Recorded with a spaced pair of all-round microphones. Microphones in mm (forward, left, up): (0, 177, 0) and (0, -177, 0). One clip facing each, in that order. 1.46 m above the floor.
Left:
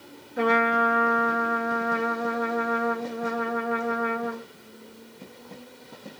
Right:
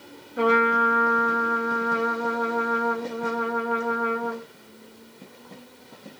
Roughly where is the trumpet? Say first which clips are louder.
Right 2 dB; centre.